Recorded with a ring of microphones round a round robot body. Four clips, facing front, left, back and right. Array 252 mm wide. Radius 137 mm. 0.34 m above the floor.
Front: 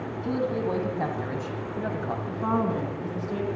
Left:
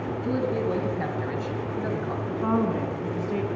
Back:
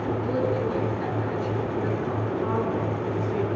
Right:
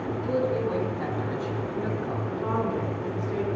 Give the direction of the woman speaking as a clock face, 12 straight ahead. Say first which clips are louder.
Left 4 dB, front 1 dB; 11 o'clock.